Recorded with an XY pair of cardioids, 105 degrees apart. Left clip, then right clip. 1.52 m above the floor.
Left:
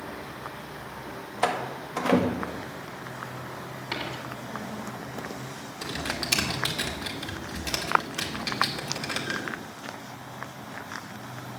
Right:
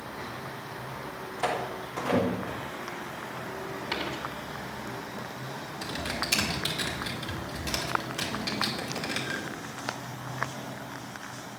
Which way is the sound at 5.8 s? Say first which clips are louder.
Left 2 dB; 20° left.